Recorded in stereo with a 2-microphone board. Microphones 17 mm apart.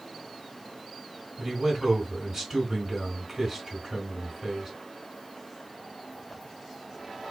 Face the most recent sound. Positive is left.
turn(degrees=-35)  # may be behind; listen again after turning